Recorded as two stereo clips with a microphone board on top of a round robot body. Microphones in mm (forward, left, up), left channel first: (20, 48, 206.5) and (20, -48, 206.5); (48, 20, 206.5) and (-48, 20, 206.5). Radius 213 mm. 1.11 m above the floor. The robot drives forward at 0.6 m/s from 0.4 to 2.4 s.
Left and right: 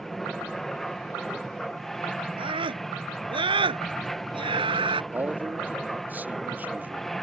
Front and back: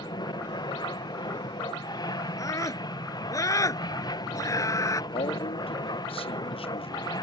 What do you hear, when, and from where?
0.0 s an aircraft: 5° left
2.4 s a scream: 55° right
5.1 s a man speaking: 20° right